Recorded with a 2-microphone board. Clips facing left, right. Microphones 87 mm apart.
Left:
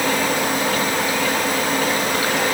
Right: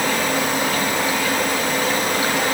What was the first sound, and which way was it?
Only background noise.